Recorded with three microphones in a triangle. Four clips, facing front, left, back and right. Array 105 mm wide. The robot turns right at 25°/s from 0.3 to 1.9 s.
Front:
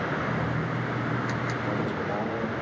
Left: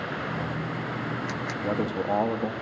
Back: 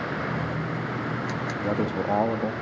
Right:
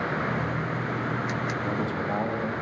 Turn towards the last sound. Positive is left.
turn(degrees=150)